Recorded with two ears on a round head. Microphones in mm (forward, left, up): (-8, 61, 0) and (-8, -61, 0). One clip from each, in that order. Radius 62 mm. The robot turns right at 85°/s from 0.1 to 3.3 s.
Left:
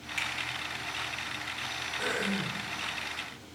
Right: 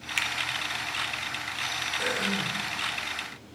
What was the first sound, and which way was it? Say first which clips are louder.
A finger snap: right 5 dB; 55° right (ahead or behind).